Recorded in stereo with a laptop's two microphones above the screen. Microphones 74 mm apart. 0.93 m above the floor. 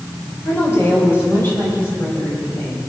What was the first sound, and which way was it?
A woman speaking, 30° left (ahead or behind).